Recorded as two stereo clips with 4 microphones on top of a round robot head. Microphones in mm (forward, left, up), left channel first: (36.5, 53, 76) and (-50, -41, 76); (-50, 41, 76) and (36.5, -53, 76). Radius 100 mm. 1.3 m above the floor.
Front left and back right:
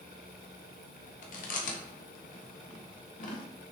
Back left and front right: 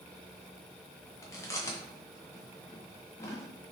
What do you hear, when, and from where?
1.2 s chewing: 65° left, 0.7 m